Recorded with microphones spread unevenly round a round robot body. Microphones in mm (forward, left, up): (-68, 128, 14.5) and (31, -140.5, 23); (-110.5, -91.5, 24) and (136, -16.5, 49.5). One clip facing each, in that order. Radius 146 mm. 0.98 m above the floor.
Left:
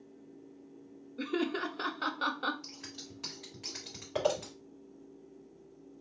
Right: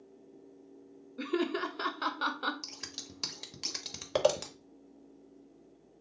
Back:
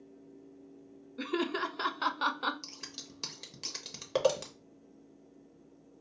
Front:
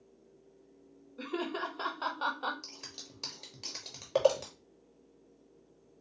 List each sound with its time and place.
1.2 s laughter: 155° right, 0.5 m
2.6 s scissors: 95° right, 0.8 m